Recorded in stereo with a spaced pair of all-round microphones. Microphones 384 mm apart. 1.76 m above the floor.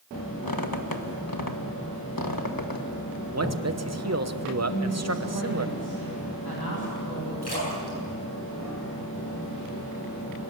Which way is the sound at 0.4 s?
60° left (ahead or behind).